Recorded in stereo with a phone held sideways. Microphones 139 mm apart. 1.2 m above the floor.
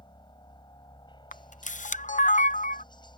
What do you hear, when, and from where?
0.0 s a helicopter: 35° left (ahead or behind)
1.3 s a camera shutter: 65° left (ahead or behind)